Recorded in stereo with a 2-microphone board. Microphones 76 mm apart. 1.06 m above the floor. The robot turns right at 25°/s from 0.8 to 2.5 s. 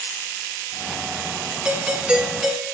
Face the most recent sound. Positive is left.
turn(degrees=-10)  # may be behind; listen again after turning